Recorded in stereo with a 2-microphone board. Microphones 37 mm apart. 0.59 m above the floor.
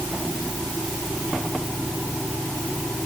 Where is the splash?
I don't hear a splash.